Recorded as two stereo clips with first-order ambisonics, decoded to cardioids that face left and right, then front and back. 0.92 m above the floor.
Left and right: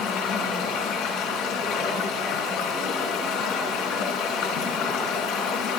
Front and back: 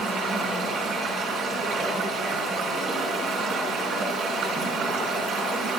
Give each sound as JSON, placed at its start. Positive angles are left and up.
{"t": 0.0, "sound": "running water", "azimuth_deg": 130, "distance_m": 3.0}